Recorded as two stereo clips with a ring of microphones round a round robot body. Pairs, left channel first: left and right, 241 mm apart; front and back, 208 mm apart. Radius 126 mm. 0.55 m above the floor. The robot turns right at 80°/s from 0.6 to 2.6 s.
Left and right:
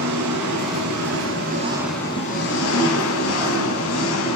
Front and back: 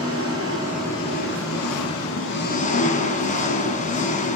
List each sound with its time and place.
0.0 s an engine running: 105° right, 2 m; by 4.4 s 55° left, 2 m